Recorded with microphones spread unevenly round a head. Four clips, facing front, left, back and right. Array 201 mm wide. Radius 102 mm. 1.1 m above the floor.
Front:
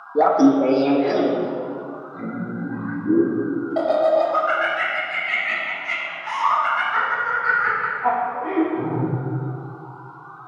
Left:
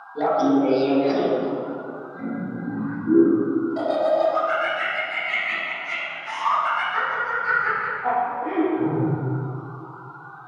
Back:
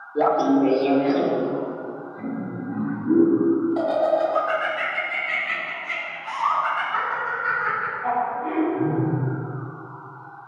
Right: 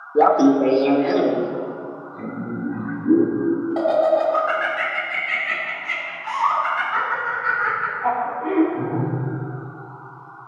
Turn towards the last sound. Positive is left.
turn(degrees=-35)